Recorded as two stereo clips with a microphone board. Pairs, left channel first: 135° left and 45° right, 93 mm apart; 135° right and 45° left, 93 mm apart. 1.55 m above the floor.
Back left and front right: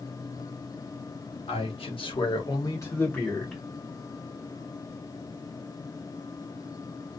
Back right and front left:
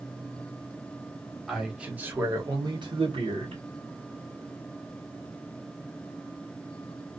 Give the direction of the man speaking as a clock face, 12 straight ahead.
8 o'clock.